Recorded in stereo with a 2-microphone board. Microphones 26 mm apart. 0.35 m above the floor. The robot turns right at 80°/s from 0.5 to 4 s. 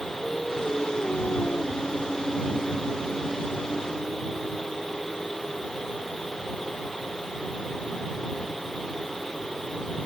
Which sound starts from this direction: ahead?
Singing, at 0.2 s.